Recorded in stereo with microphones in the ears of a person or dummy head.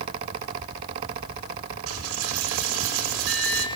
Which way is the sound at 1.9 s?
80° right.